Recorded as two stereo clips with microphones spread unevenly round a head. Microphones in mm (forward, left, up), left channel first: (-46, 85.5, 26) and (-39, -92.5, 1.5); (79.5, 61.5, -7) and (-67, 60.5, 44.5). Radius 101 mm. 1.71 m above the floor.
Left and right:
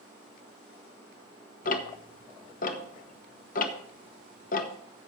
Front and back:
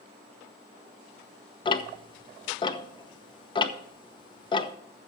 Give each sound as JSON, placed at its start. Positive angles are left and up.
{"t": 1.6, "sound": "ticking", "azimuth_deg": 65, "distance_m": 1.0}